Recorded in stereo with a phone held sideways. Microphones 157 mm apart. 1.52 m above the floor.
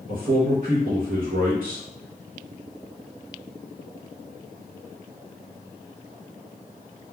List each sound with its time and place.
0.1 s a man speaking: 65° right (ahead or behind), 0.7 m